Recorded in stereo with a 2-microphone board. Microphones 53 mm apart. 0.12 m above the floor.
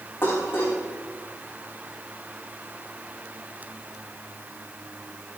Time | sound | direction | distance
0.2 | dishes clattering | 45° left (ahead or behind) | 7 m